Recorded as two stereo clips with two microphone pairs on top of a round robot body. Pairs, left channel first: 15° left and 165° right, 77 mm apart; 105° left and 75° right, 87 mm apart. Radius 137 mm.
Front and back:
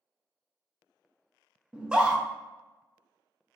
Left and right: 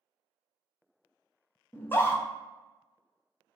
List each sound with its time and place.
1.7 s a scream: 145° left, 1.0 m